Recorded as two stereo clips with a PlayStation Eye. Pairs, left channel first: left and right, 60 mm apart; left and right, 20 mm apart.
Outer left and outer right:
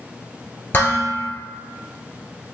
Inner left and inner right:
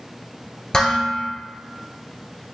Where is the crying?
No crying in this recording.